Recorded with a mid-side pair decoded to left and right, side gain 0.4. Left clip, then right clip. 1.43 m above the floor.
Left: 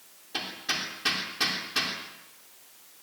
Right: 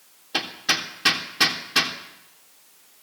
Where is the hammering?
60° right, 3 m.